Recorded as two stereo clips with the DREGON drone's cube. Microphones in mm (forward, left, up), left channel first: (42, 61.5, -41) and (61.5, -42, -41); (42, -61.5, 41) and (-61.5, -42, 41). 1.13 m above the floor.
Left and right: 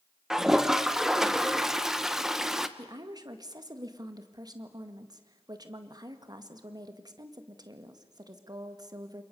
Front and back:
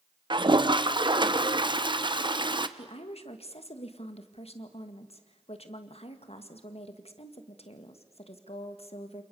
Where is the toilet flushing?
165° right, 1.0 m.